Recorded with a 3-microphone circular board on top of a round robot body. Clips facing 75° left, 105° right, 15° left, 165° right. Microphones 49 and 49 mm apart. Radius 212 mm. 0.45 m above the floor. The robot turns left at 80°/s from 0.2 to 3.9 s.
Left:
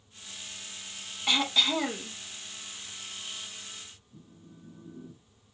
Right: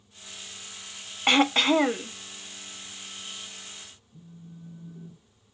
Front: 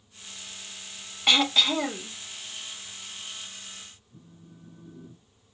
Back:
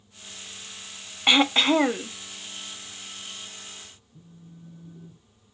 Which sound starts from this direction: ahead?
A phone buzzing, at 4.1 s.